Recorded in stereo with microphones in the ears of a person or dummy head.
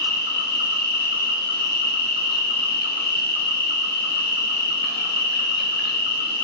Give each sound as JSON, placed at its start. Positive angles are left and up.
{"t": 0.0, "sound": "an insect", "side_deg": 55, "distance_m": 1.0}